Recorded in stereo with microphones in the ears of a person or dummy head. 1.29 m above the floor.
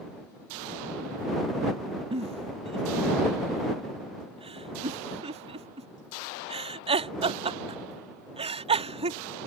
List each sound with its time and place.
2.1 s a giggle: 30° right (ahead or behind)